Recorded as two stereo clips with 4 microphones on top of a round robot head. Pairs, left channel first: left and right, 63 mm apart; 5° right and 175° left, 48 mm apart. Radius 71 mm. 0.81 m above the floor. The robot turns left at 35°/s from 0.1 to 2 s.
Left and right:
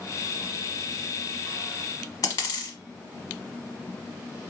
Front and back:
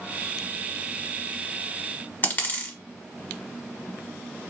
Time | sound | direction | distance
2.2 | a dropped coin | 40° left | 1.0 m